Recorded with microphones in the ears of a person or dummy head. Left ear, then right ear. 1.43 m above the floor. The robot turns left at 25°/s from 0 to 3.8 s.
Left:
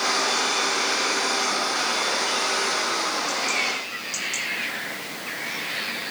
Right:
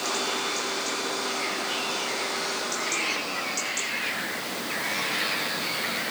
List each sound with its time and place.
Only background noise.